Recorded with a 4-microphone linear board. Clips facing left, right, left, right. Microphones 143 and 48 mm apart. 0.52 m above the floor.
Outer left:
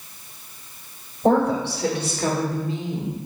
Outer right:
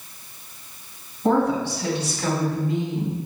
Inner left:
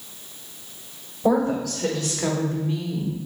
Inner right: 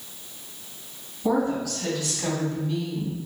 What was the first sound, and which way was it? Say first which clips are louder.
A woman speaking: outer left 1 dB, inner left 3 dB; 70° left (ahead or behind).